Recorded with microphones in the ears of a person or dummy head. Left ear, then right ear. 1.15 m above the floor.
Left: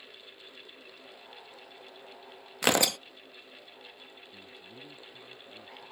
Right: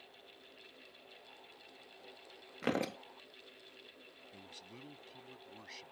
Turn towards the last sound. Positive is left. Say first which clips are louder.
# left 5 dB
turn(degrees=-50)  # may be behind; listen again after turning